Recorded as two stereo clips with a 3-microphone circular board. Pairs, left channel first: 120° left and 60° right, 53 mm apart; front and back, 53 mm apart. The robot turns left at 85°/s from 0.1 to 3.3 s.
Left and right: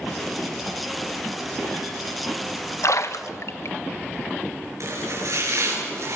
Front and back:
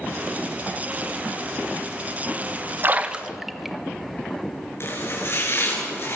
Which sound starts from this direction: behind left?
A splash, at 2.8 s.